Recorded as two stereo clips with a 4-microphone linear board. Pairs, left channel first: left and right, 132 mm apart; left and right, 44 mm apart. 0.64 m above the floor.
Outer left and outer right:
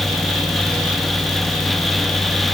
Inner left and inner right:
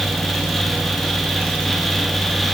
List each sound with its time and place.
Only background noise.